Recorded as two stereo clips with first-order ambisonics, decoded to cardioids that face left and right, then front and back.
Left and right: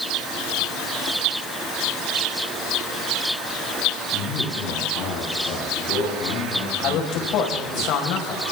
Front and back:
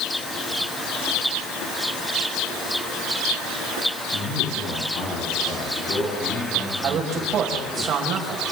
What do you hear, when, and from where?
4.1 s a man speaking: 40° left, 10 m; by 7.8 s 70° left, 10 m
6.8 s a man speaking: 125° left, 5 m